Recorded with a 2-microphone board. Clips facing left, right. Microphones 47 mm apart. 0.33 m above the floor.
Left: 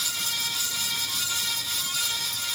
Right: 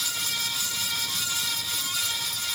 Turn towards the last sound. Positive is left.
No sound to turn to.